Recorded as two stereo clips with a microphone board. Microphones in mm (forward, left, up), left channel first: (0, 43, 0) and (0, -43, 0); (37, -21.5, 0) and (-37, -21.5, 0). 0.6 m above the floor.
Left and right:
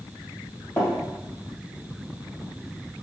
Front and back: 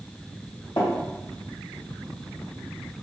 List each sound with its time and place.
0.8 s tapping: 20° left, 1.5 m